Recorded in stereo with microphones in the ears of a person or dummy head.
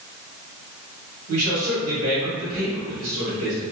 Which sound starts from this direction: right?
A man speaking, at 1.3 s.